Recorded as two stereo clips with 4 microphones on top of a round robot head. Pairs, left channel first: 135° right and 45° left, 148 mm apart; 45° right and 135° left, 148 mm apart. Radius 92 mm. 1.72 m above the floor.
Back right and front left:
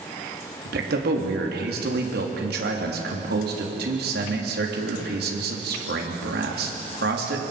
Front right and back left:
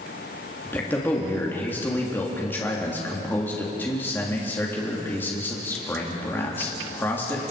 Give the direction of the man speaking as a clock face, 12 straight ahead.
11 o'clock.